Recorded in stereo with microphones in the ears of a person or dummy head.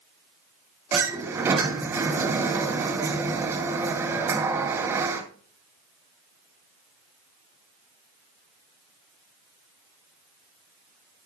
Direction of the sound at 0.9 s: 15° right (ahead or behind).